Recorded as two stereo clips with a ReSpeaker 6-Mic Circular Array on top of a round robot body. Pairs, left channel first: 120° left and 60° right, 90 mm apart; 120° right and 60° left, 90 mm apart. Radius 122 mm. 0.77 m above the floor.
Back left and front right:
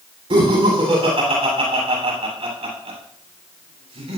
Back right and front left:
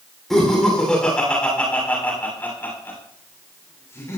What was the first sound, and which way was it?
Laughter, 35° right.